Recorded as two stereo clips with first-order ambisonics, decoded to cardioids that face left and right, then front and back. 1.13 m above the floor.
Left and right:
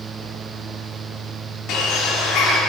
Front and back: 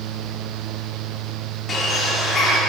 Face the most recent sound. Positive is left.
turn(degrees=60)